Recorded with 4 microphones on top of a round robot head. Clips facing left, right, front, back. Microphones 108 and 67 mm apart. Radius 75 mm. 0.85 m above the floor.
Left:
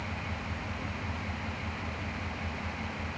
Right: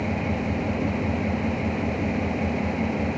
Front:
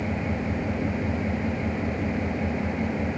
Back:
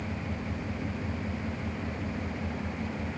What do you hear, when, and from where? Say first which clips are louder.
0.0 s an engine running: right 13 dB, front 8 dB; 60° right